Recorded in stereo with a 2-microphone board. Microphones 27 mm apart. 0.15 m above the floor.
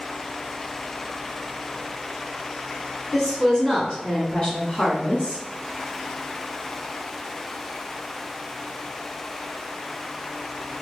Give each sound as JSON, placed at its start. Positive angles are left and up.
{"t": 3.1, "sound": "a woman speaking", "side_deg": 5, "distance_m": 1.2}